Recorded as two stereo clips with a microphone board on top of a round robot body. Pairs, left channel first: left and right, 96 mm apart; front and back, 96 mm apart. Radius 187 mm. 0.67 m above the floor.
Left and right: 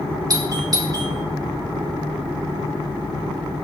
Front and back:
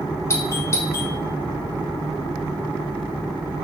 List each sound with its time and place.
0.3 s a doorbell: 55° right, 2.5 m